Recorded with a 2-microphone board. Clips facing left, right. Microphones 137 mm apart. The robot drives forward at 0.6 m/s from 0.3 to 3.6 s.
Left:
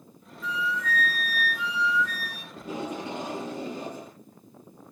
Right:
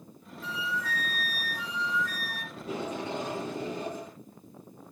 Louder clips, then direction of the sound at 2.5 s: Left 1 dB; 15° left (ahead or behind).